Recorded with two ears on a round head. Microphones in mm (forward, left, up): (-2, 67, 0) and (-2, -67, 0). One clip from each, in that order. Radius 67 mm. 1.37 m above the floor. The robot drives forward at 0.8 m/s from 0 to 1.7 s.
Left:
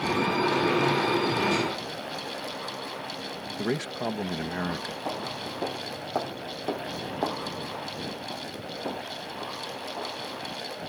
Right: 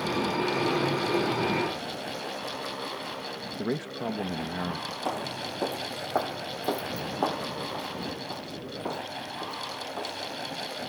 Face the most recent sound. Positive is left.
turn(degrees=-85)